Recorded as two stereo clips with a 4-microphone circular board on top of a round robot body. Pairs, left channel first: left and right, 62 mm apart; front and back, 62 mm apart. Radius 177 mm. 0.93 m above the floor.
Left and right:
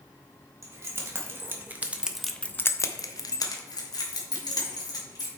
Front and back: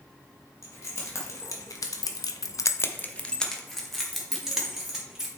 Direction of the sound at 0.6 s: 45° right.